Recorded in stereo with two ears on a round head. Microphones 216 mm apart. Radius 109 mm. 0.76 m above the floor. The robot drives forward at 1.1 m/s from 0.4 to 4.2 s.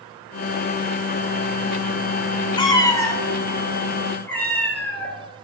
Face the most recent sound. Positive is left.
turn(degrees=10)  # may be behind; listen again after turning